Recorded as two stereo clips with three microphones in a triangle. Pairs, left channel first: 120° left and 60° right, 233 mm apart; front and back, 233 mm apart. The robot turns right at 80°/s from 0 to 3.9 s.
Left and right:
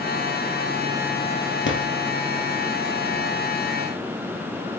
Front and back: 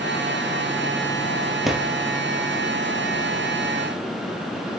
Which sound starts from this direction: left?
A drawer, at 1.6 s.